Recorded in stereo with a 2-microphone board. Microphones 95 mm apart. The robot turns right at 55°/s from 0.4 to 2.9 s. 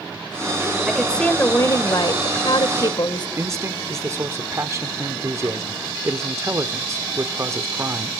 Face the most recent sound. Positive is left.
turn(degrees=-30)  # may be behind; listen again after turning